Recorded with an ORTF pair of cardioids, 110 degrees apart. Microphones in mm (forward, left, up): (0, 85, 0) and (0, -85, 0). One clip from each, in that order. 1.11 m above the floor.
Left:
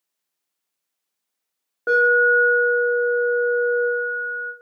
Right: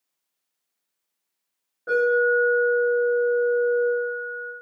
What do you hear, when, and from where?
1.9 s an alarm: 65° left, 1.1 m